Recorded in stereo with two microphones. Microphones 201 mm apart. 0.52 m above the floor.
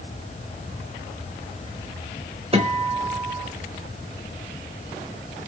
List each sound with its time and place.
2.5 s a guitar: 30° right (ahead or behind), 0.7 m